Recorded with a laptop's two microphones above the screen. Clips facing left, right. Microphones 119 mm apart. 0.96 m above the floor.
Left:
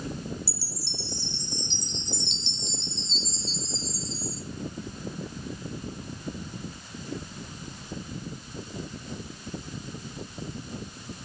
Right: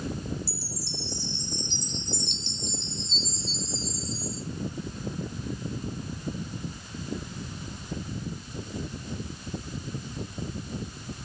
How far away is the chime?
About 2.5 m.